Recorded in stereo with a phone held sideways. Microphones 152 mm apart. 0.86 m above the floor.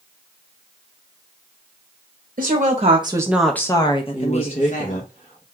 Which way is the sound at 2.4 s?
60° right (ahead or behind).